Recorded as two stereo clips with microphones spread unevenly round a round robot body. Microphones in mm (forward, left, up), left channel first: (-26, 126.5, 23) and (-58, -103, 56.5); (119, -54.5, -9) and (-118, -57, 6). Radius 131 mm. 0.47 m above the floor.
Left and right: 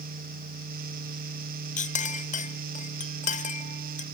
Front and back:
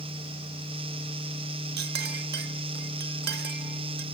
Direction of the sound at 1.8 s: 130° left.